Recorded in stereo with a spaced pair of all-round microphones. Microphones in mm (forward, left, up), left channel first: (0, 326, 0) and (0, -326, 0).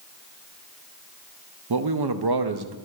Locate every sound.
1.7 s a man speaking: 40° right (ahead or behind), 0.6 m